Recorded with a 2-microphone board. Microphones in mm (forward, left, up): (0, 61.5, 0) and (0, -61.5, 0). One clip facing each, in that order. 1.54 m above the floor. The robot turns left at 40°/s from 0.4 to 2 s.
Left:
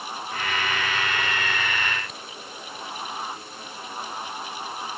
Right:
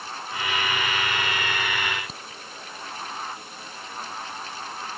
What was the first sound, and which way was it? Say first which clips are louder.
A crack: even; 30° right (ahead or behind).